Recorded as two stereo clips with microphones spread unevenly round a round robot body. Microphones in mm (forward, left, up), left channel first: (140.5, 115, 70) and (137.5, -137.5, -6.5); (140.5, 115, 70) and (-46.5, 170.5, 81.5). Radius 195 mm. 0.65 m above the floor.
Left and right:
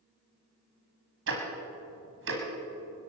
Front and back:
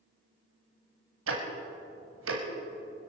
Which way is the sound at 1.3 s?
155° right.